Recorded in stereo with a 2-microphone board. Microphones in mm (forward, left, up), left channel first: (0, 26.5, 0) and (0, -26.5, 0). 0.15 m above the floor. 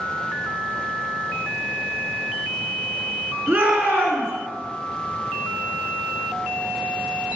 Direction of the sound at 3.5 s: 35° right (ahead or behind).